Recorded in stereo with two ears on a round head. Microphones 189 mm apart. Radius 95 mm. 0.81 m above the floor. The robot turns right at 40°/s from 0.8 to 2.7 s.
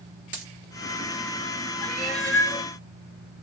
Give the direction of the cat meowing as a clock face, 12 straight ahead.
12 o'clock.